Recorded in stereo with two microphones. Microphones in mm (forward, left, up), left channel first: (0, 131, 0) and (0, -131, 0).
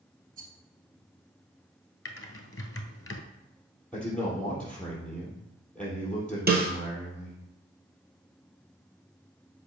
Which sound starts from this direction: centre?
A man speaking, at 3.9 s.